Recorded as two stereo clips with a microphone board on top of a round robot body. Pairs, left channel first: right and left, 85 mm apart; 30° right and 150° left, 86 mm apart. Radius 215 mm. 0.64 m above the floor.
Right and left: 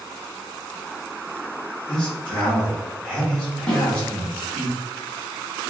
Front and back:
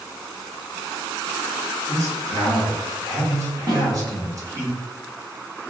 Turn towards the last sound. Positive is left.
turn(degrees=-170)